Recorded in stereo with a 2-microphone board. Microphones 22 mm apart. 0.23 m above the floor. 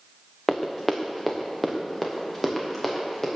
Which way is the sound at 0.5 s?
10° left (ahead or behind).